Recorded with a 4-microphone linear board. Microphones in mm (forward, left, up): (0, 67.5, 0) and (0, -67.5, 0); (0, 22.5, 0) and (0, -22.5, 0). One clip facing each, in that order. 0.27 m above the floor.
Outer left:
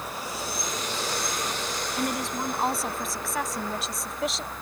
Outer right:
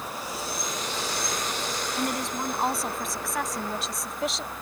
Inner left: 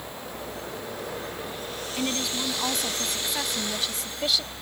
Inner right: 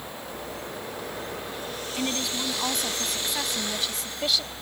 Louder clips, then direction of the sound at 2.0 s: Outer left 1 dB, inner left 1 dB; centre (ahead or behind).